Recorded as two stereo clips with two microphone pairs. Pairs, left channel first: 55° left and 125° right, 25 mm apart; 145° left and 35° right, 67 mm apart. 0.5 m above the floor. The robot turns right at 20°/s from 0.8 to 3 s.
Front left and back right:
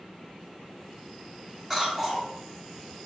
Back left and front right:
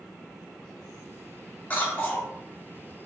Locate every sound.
1.7 s a cough: 155° left, 1.1 m; by 2.3 s 170° left, 1.1 m